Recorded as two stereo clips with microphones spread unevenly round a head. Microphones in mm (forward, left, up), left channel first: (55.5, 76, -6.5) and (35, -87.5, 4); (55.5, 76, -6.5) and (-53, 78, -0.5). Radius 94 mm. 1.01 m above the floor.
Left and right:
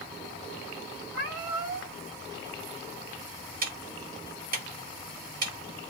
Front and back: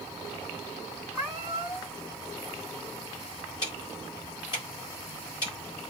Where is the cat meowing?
80° right, 2.5 m.